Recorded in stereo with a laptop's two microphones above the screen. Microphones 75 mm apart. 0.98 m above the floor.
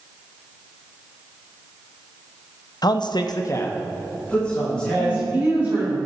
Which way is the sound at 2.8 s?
60° left (ahead or behind).